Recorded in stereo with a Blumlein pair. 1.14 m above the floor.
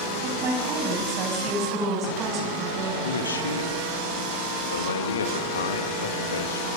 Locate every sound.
0.2 s a woman speaking: 30° right, 7 m
3.0 s a man speaking: 70° left, 2 m